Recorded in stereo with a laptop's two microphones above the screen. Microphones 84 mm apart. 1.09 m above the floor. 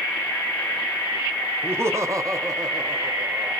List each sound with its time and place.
1.6 s laughter: 25° right (ahead or behind), 0.9 m; by 3.5 s 35° right (ahead or behind), 1.0 m